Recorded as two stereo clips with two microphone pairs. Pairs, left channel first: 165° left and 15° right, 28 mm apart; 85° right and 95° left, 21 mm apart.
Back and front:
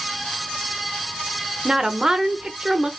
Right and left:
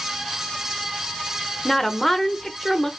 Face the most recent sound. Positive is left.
turn(degrees=-30)